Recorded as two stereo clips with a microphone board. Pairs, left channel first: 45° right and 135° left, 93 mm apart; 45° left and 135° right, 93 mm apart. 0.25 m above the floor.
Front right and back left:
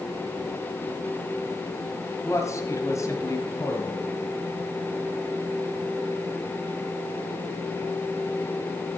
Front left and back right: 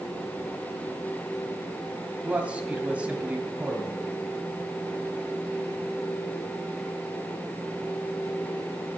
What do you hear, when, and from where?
2.2 s a man speaking: 70° right, 1.8 m